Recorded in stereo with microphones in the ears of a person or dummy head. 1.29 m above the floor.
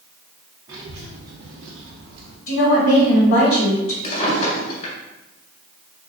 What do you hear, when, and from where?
0.7 s a child speaking: 20° right (ahead or behind), 0.7 m; by 2.4 s 65° right (ahead or behind), 0.7 m
2.5 s a woman speaking: 70° left (ahead or behind), 1.9 m
4.0 s a drawer: 35° left (ahead or behind), 1.7 m